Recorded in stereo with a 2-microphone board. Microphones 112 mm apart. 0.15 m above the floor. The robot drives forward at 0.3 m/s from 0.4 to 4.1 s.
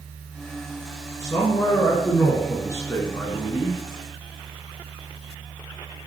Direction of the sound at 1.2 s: 25° left (ahead or behind).